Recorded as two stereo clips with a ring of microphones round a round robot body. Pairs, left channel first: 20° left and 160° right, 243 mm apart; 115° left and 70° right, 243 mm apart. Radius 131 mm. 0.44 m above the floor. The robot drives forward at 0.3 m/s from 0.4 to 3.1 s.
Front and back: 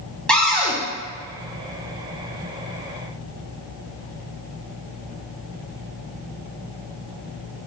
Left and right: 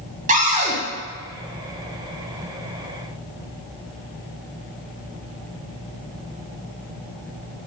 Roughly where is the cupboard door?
Ahead right.